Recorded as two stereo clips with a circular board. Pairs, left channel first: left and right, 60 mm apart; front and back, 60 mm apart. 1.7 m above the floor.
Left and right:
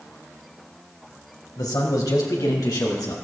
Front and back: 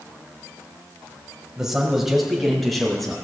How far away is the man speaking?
About 2 m.